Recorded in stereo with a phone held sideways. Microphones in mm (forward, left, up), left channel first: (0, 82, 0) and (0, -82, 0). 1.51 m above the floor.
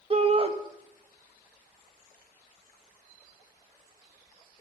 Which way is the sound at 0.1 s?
35° right (ahead or behind).